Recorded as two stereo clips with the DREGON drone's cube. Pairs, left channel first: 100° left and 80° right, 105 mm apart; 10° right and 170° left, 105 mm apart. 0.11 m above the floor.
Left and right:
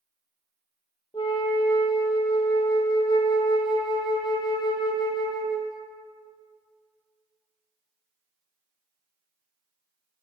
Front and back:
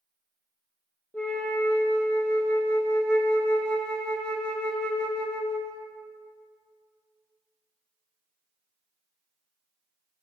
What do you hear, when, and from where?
1.1 s a flute: 70° left, 0.9 m